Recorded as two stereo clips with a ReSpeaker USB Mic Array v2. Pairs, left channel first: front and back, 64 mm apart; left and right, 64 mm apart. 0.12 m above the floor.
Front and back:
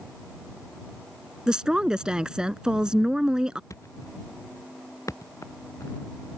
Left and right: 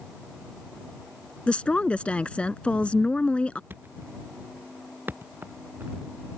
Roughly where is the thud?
Ahead right.